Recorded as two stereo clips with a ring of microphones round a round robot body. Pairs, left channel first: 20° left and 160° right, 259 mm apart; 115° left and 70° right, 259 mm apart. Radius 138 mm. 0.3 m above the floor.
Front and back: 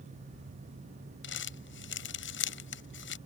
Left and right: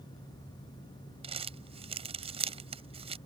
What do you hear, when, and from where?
1.2 s crumpling: 5° right